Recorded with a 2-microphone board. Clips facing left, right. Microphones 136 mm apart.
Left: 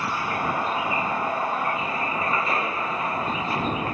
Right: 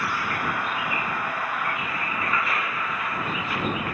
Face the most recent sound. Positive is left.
turn(degrees=30)  # may be behind; listen again after turning